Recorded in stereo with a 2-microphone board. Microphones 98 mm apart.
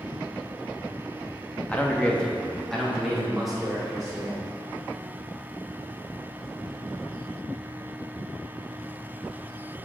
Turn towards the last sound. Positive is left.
turn(degrees=-5)  # may be behind; listen again after turning